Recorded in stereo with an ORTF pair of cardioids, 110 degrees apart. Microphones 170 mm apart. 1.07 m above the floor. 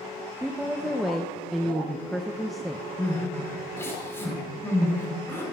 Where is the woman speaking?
Straight ahead, 0.5 m.